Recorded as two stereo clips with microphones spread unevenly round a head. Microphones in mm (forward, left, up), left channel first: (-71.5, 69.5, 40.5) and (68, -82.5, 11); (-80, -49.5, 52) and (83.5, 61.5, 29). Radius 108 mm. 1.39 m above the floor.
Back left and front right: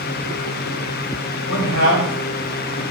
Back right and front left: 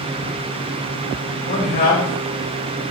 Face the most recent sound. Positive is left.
turn(degrees=170)